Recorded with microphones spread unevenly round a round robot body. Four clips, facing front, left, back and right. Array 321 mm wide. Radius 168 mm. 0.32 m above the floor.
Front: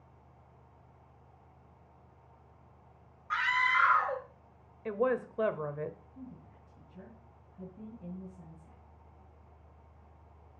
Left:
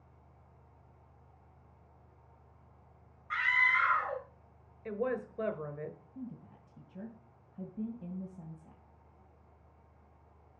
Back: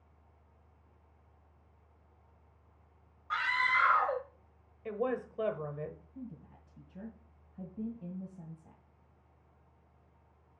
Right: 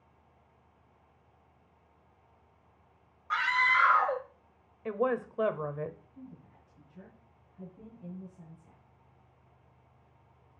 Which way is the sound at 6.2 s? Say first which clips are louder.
Left 5 dB, back 2 dB; 120° left.